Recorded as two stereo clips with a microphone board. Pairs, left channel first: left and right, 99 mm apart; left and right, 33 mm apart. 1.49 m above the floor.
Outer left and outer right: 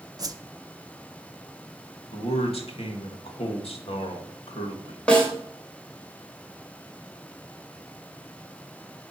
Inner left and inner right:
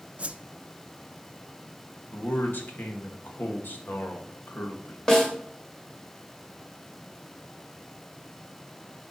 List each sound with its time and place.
0.2 s a whoosh: 40° right (ahead or behind), 0.6 m
2.1 s a man speaking: 85° left, 2 m
5.1 s a snare drum: 10° left (ahead or behind), 2.5 m